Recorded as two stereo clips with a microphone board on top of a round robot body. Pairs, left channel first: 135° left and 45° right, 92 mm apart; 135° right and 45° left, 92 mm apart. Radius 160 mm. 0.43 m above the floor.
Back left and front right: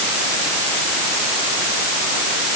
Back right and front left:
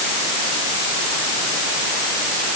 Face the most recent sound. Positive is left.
No sound to turn to.